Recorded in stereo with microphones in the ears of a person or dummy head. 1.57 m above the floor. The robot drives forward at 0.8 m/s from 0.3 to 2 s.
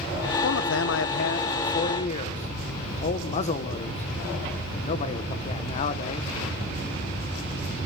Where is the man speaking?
75° left (ahead or behind), 0.9 m; by 6.3 s 40° left (ahead or behind), 1.4 m.